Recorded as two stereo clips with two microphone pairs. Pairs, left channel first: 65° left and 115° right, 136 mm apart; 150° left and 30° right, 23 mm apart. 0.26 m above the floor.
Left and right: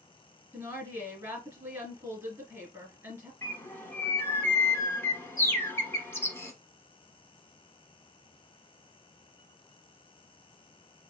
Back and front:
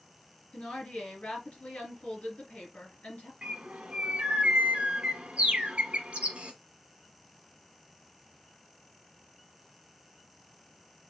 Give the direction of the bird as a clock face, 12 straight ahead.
12 o'clock.